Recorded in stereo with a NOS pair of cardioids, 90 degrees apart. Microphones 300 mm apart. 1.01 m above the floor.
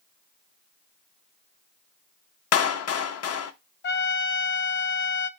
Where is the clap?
55° left, 0.8 m.